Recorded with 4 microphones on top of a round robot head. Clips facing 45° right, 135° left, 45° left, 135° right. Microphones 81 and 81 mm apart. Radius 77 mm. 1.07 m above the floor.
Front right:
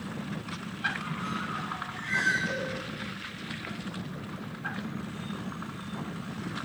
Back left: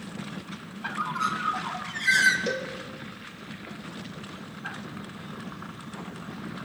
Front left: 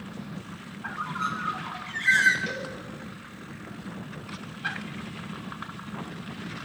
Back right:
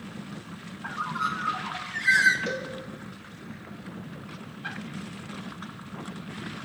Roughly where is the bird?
Behind left.